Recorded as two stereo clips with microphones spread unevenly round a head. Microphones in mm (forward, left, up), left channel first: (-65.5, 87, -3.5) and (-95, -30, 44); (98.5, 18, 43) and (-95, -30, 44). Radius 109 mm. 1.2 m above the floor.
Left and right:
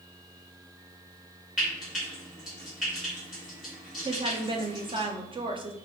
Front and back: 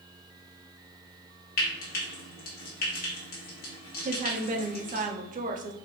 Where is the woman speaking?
160° right, 0.6 m.